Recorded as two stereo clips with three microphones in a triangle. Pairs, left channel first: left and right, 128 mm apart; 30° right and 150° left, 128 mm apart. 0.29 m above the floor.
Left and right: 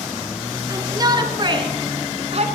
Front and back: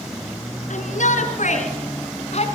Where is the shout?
30° right, 4.5 m; by 2.5 s 60° right, 3.5 m.